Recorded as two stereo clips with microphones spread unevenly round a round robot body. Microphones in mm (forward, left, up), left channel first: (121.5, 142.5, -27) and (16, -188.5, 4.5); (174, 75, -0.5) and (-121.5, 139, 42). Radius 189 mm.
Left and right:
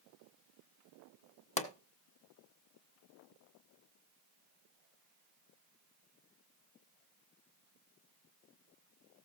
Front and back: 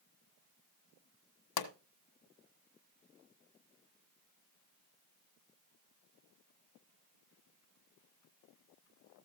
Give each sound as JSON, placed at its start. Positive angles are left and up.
{"t": 1.6, "sound": "a pop", "azimuth_deg": 0, "distance_m": 1.4}